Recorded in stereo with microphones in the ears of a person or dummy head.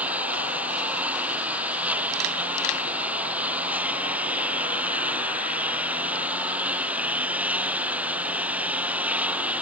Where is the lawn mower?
10° right (ahead or behind).